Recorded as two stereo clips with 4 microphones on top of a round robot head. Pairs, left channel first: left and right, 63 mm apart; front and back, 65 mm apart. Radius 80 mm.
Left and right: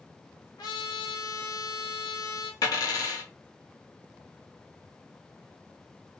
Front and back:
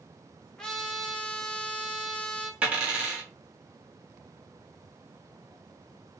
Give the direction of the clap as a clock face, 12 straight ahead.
I don't hear a clap.